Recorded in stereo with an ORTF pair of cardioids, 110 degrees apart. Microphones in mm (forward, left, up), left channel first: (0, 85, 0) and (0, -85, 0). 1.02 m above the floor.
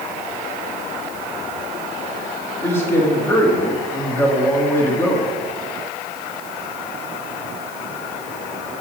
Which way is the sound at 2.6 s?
15° left.